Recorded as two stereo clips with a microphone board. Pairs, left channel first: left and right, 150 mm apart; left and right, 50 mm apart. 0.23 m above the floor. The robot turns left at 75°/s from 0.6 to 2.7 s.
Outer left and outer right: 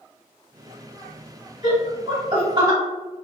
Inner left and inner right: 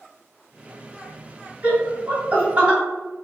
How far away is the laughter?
About 1.7 m.